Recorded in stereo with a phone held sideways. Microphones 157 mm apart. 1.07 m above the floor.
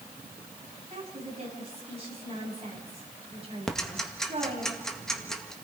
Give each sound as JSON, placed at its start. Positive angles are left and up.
{"t": 0.9, "sound": "a woman speaking", "side_deg": -40, "distance_m": 7.5}
{"t": 3.7, "sound": "ticking", "side_deg": 5, "distance_m": 1.8}